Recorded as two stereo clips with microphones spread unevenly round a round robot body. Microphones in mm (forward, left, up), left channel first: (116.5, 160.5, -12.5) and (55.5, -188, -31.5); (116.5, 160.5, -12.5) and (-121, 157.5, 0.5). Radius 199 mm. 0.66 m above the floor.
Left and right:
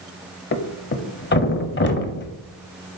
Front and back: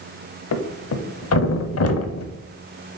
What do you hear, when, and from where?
0.5 s a thud: 20° left, 0.9 m